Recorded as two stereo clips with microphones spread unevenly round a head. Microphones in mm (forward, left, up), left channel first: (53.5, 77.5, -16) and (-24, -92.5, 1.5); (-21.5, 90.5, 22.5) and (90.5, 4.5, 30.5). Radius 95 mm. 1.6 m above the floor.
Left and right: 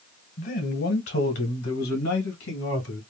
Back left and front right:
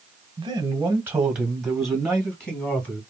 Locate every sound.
0.4 s a man speaking: 25° left, 1.1 m; by 3.0 s 65° left, 2.5 m